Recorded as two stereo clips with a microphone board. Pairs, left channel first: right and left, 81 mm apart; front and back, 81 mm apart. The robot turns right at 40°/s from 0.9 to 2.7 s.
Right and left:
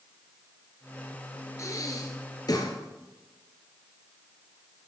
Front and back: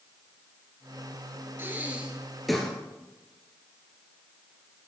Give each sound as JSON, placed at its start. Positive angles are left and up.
{"t": 1.6, "sound": "breathing", "azimuth_deg": -125, "distance_m": 1.5}